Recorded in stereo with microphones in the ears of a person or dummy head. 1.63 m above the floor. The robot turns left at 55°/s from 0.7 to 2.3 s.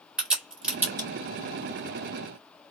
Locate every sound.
0.2 s a crack: centre (ahead or behind), 1.3 m; by 1.1 s 15° right (ahead or behind), 1.3 m